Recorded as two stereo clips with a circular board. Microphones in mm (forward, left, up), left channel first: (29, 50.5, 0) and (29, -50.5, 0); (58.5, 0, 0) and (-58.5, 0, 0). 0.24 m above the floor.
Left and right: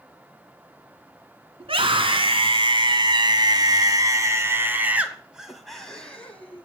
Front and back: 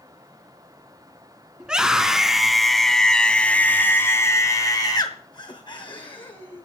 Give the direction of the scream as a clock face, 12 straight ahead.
3 o'clock.